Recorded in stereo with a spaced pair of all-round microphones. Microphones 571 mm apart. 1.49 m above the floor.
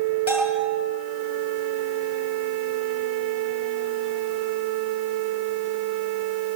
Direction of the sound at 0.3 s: 5° right (ahead or behind).